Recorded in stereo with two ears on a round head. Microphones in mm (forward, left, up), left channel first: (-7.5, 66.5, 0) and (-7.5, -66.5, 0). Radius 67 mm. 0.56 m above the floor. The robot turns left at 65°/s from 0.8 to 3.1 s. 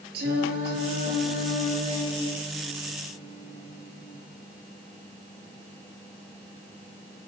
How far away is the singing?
About 7.5 m.